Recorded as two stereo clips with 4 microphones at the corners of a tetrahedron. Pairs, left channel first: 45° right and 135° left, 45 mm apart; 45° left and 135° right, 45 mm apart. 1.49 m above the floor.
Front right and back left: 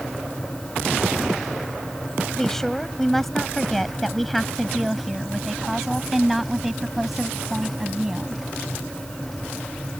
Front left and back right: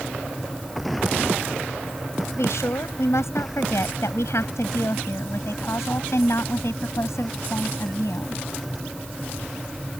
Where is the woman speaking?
35° left; by 8.4 s 55° left.